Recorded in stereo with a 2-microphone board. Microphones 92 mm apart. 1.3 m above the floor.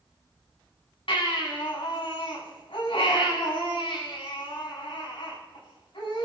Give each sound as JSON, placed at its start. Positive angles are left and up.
{"t": 1.1, "sound": "a baby crying", "side_deg": 70, "distance_m": 6.5}